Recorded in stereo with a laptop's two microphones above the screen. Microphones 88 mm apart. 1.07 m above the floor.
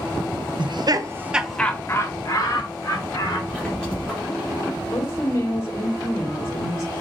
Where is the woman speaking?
35° left (ahead or behind), 1.8 m.